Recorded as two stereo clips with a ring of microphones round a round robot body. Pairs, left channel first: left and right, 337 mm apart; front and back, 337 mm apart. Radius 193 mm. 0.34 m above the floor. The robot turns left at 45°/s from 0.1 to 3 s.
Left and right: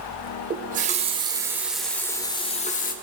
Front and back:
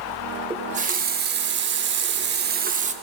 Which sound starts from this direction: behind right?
A running tap, at 0.5 s.